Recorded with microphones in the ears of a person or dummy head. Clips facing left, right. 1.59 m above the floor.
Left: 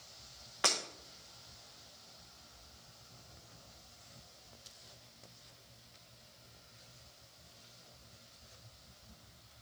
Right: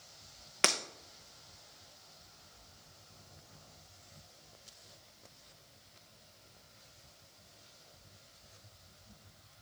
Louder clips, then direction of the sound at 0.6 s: Right 2 dB; 30° right (ahead or behind).